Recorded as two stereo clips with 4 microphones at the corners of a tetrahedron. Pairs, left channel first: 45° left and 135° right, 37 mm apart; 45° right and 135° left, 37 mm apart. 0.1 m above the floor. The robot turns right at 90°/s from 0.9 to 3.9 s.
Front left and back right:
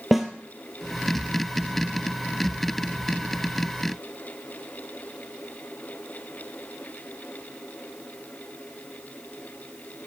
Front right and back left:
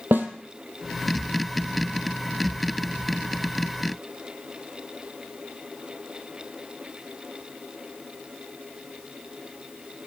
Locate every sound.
0.1 s a snare drum: 140° left, 0.8 m